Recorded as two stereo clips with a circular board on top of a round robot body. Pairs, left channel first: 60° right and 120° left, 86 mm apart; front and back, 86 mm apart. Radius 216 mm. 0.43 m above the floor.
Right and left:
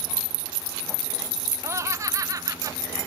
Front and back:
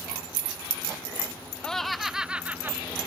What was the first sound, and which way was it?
Laughter, 80° left.